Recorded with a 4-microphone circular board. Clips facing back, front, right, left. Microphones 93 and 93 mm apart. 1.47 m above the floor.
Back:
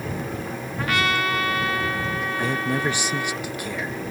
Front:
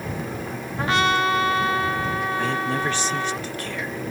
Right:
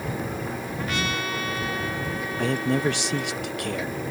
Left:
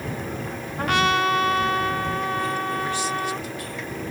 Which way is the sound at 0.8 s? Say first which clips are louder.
Front 3 dB, left 10 dB; 60° left.